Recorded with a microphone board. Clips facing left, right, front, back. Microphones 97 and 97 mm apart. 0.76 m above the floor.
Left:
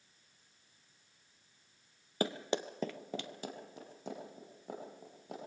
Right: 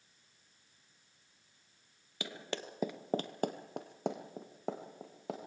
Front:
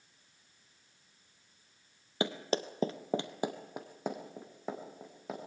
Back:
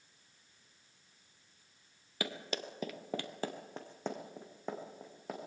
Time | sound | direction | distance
2.2 | running footsteps | 55° left | 1.2 m